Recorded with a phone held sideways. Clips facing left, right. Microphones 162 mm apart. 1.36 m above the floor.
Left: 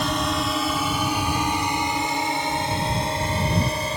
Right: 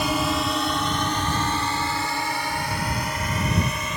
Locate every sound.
0.0 s a drone: 5° right (ahead or behind); by 4.0 s 30° left (ahead or behind)